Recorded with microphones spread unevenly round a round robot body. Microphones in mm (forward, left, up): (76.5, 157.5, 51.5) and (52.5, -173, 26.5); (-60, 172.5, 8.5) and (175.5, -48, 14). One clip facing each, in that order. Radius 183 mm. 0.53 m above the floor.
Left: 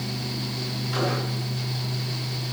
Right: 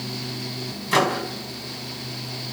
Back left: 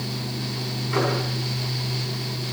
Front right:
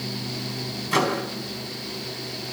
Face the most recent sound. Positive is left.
turn(degrees=-90)